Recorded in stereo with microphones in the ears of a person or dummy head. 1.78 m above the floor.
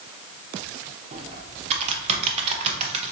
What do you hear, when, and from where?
1.1 s typing on a keyboard: 40° right (ahead or behind), 0.7 m